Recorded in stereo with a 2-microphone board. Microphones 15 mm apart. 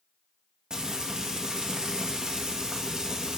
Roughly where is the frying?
Right.